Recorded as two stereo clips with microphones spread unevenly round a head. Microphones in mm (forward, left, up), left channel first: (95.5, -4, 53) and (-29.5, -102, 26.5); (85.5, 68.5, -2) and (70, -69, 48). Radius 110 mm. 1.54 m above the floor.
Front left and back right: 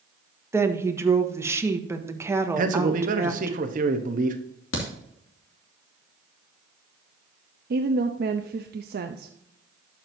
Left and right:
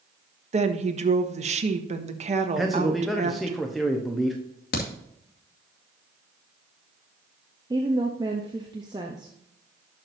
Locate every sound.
0.5 s a woman speaking: 65° right, 1.3 m
2.6 s a man speaking: 170° left, 0.9 m
4.7 s a crack: 70° left, 2 m
7.7 s a woman speaking: 170° right, 0.6 m